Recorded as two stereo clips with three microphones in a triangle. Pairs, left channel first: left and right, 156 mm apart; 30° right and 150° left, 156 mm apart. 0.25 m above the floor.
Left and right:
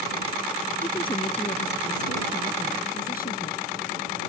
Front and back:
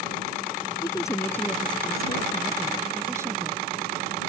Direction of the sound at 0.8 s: 35° left.